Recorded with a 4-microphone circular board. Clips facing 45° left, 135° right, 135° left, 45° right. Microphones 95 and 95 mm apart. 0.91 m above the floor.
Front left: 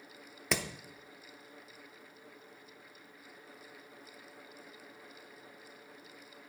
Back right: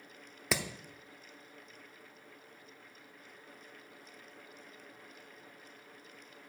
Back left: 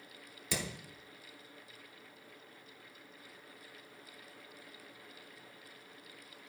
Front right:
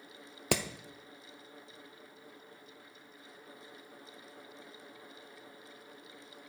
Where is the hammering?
45° right, 0.7 m.